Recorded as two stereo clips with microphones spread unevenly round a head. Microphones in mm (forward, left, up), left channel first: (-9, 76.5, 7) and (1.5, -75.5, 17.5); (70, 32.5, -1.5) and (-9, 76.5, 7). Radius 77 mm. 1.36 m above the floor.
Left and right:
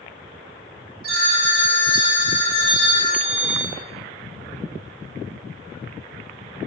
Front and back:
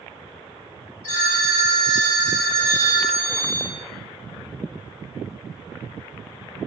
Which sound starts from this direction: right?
A phone ringing, at 1.0 s.